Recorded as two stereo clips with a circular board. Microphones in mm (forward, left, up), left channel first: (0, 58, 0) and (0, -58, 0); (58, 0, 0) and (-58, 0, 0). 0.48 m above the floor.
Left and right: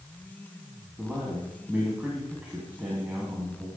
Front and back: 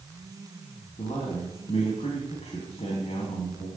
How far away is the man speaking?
About 3.5 m.